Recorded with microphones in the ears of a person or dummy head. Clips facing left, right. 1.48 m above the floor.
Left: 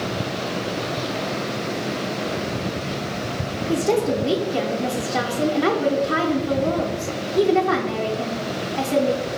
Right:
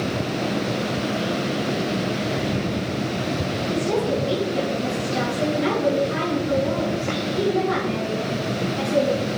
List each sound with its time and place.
3.7 s a woman speaking: 85° left, 0.6 m